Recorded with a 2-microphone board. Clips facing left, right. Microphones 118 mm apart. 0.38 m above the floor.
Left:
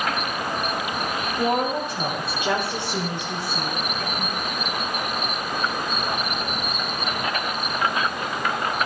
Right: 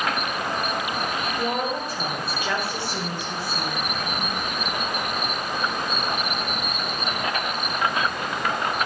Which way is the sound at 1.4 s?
20° left (ahead or behind).